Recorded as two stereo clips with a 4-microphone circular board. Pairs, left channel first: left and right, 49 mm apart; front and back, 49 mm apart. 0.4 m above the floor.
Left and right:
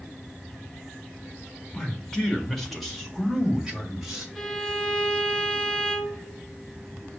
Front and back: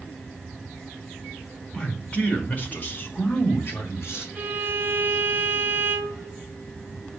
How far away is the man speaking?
About 1.4 m.